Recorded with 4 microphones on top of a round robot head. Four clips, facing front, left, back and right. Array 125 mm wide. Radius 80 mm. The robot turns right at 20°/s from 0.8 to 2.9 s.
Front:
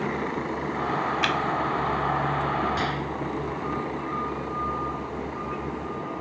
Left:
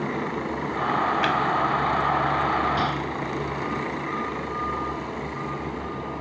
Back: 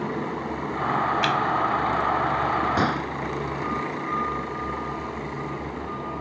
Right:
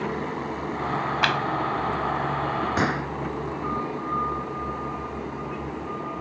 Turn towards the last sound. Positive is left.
turn(degrees=-140)